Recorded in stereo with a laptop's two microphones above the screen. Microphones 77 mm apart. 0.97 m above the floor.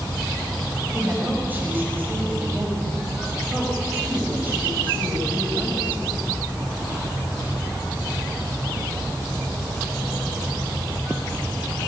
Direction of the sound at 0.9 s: 20° right (ahead or behind).